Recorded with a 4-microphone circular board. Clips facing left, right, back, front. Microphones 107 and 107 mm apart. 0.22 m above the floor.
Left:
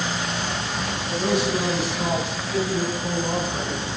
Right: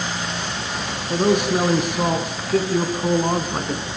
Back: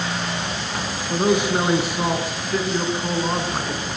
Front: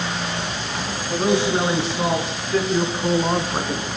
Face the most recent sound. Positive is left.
turn(degrees=-75)